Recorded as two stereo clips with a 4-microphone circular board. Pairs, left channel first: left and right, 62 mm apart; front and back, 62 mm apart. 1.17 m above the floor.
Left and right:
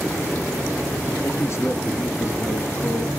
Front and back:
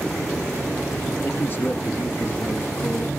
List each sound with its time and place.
1.2 s a man speaking: 50° left, 1.3 m